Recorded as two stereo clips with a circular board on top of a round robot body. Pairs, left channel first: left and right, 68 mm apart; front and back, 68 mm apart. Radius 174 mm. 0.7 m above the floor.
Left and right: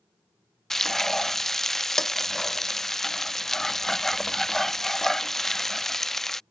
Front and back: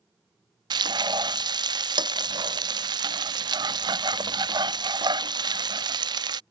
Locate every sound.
0.7 s frying: 175° left